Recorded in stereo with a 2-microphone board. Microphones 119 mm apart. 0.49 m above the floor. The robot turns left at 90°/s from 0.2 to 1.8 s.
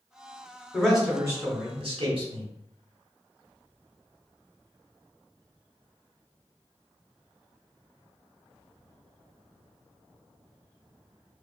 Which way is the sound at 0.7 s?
15° left.